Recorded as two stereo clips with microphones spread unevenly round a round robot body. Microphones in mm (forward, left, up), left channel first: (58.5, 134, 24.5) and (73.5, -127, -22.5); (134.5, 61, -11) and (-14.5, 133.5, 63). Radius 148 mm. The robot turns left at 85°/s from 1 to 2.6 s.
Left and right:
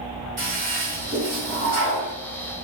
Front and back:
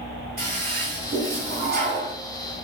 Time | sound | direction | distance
0.4 | a toilet flushing | 140° right | 1.9 m